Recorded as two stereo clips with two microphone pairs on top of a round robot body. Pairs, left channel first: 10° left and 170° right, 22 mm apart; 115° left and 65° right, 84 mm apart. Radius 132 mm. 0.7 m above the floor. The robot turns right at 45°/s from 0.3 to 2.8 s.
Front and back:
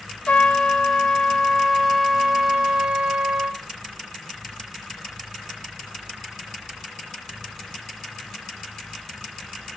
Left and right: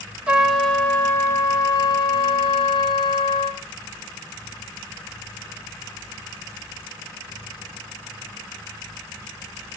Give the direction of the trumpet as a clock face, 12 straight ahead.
12 o'clock.